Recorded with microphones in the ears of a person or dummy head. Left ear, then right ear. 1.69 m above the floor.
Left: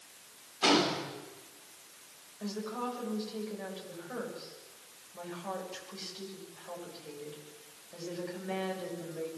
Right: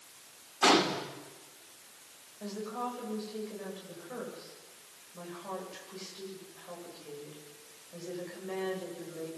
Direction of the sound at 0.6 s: 35° right (ahead or behind).